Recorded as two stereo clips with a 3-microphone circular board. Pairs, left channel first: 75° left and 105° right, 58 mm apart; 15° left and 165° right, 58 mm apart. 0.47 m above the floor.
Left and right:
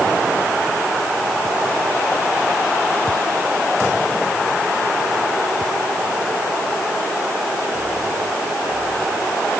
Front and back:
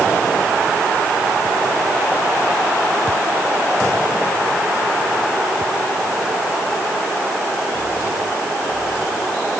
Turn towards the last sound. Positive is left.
No sound to turn to.